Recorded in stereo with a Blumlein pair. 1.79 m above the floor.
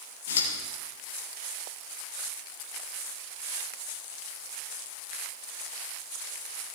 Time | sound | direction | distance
0.3 | scissors | 60° left | 2.5 m